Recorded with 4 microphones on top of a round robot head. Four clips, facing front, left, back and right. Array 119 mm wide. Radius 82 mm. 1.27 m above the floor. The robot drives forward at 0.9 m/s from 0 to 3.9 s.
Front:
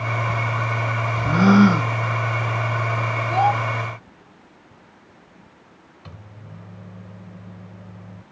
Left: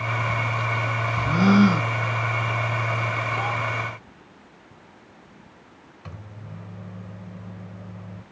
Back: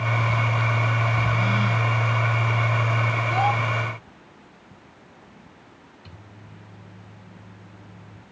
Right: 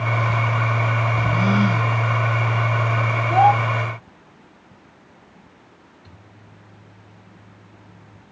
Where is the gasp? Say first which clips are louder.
Left 5 dB, front 10 dB; 10° left.